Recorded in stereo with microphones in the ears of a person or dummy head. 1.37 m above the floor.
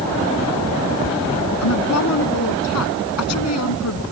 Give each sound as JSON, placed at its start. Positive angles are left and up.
{"t": 1.6, "sound": "a woman speaking", "side_deg": 85}